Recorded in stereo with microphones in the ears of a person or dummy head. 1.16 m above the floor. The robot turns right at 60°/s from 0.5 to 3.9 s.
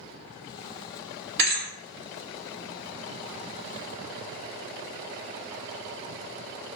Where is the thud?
60° right (ahead or behind), 1.3 m; by 1.7 s 45° right (ahead or behind), 1.3 m.